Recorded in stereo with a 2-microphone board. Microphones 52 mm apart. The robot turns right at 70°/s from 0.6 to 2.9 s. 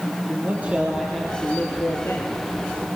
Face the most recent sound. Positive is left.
turn(degrees=125)